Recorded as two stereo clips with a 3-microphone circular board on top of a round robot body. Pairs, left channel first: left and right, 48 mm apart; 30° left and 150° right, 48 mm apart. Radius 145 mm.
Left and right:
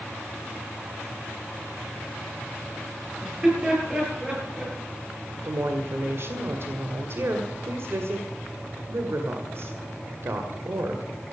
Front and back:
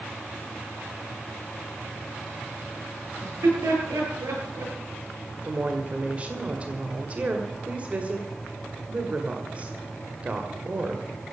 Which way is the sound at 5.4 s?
95° right.